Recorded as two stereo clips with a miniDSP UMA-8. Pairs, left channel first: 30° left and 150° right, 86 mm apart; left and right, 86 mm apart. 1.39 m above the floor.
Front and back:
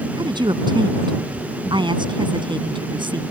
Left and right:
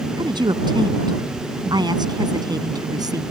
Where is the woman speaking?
120° right; by 3.2 s 130° right.